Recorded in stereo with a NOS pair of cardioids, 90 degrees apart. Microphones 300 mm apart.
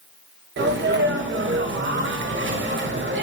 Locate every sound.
0.6 s a sneeze: 40° right, 0.9 m